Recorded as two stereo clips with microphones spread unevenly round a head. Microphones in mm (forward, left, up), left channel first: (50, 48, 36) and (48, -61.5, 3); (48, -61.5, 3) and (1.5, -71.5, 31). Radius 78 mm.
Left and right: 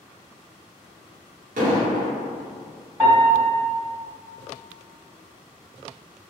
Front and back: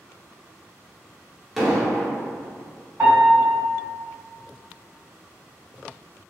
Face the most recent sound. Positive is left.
turn(degrees=160)